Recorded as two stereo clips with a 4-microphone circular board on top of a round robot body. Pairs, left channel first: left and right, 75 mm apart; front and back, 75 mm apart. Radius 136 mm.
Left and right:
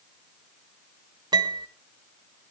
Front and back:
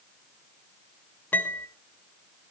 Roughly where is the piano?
Right.